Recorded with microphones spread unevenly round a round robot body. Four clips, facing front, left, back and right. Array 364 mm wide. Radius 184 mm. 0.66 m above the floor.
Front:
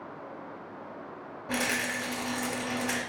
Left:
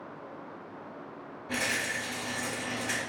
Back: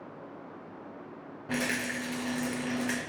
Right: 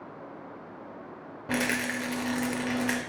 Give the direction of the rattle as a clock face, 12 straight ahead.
2 o'clock.